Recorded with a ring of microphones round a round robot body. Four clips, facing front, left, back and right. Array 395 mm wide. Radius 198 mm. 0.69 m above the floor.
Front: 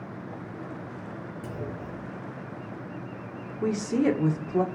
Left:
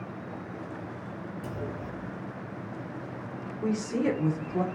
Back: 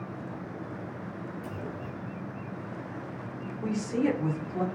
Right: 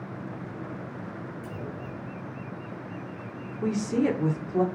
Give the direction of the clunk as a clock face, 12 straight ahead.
12 o'clock.